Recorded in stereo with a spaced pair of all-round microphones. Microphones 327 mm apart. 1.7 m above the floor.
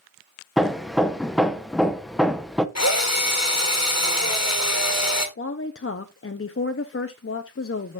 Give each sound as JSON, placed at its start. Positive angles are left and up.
{"t": 0.6, "sound": "hammering", "side_deg": 0, "distance_m": 0.7}
{"t": 2.8, "sound": "a drill", "side_deg": 50, "distance_m": 1.5}
{"t": 5.4, "sound": "a woman speaking", "side_deg": 40, "distance_m": 0.6}